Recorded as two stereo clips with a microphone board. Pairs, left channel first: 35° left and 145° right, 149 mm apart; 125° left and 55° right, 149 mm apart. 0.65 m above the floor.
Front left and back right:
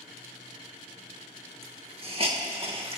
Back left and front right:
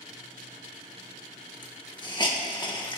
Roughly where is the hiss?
Behind.